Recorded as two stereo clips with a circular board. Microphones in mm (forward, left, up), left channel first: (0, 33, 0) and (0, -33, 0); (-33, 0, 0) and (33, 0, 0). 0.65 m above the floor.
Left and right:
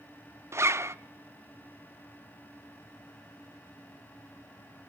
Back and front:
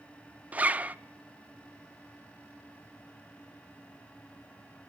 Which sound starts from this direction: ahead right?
A zipper, at 0.5 s.